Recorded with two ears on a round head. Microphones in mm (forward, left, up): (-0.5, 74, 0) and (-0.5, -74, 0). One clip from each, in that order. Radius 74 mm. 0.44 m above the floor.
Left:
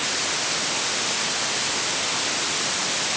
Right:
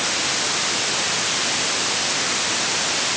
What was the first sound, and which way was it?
Only background noise.